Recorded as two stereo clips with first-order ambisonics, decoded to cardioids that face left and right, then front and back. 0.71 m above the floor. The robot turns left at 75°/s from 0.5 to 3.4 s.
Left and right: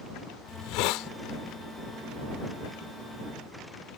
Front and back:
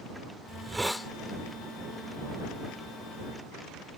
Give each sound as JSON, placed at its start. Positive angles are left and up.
{"t": 0.5, "sound": "a hiss", "azimuth_deg": 120}